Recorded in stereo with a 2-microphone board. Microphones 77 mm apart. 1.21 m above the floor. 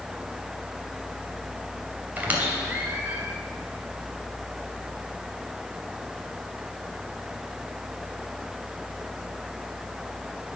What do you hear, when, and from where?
2.2 s a squeak: 25° right (ahead or behind), 2.5 m